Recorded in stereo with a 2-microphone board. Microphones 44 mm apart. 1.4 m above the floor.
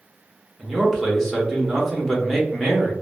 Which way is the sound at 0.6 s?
5° left (ahead or behind).